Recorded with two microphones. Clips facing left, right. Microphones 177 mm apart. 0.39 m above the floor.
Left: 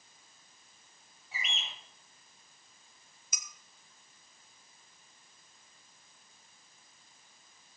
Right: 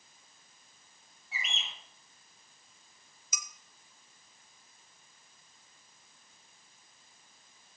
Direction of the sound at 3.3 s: 55° left (ahead or behind).